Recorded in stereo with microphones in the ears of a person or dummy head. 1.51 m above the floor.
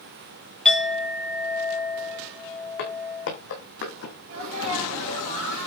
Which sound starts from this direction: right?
A sneeze, at 4.3 s.